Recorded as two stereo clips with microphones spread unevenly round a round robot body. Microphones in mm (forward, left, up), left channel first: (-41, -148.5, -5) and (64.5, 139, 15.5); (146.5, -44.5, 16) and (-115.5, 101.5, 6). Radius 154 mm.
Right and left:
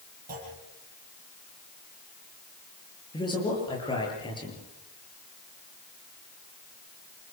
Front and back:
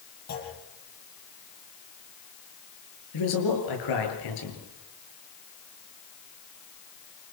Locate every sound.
0.3 s a clunk: 10° left, 9.5 m
3.1 s a man speaking: 35° right, 8.5 m